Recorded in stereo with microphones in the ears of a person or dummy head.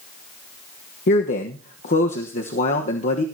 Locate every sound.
1.1 s a man speaking: 50° left (ahead or behind), 1.2 m